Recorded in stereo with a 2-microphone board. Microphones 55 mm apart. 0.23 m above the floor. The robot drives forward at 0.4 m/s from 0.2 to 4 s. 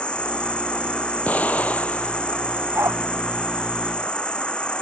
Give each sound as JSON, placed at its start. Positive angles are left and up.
{"t": 0.0, "sound": "an insect", "side_deg": 20}
{"t": 1.3, "sound": "an explosion", "side_deg": 30}
{"t": 2.8, "sound": "a dog barking", "side_deg": -60}